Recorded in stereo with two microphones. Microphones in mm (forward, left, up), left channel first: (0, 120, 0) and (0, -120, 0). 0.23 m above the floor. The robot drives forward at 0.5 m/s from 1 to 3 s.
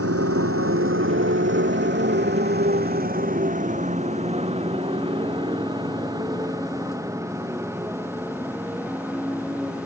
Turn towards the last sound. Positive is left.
turn(degrees=-5)  # may be behind; listen again after turning